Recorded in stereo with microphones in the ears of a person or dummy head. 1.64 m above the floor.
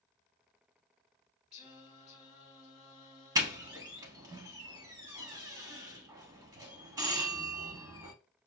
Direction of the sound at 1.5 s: 5° right (ahead or behind).